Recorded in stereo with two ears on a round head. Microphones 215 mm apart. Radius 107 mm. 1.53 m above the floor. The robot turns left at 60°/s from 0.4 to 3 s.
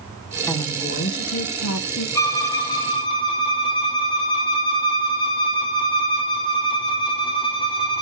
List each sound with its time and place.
0.5 s a woman speaking: 170° left, 0.9 m; by 2.0 s 75° left, 0.9 m
2.1 s a violin: 15° left (ahead or behind), 1.0 m; by 8.0 s 20° left (ahead or behind), 1.0 m